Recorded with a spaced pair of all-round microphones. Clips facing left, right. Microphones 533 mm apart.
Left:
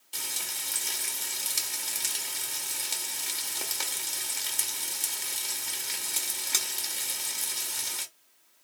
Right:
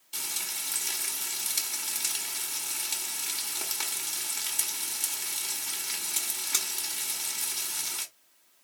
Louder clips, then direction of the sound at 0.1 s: Left 1 dB; centre (ahead or behind).